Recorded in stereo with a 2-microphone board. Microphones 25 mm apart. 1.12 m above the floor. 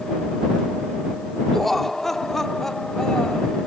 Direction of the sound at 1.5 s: 10° left (ahead or behind).